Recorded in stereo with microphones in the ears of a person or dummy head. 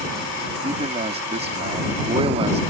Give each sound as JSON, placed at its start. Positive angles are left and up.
{"t": 0.6, "sound": "a man speaking", "side_deg": -35}